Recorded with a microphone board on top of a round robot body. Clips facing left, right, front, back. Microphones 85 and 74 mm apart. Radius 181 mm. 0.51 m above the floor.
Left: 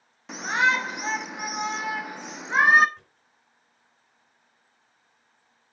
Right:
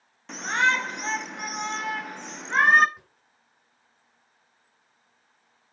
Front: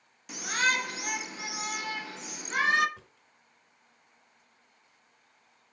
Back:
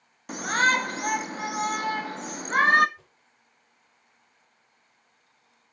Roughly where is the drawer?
Ahead.